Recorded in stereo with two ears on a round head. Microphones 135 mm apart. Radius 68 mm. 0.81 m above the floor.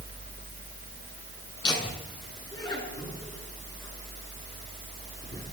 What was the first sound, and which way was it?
Laughter, 30° left (ahead or behind).